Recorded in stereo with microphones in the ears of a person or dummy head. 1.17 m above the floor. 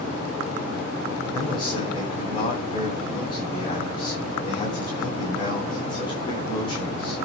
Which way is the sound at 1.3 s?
25° left (ahead or behind).